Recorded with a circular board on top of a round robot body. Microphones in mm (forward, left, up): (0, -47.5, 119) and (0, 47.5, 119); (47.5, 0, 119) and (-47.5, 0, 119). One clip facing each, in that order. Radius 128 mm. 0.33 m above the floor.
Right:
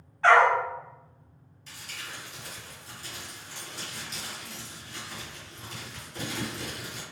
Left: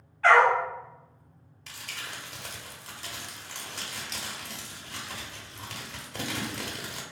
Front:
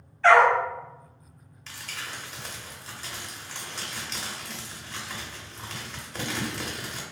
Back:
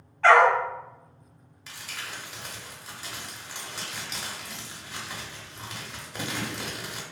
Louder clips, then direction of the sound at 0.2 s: Even, even; 155° right.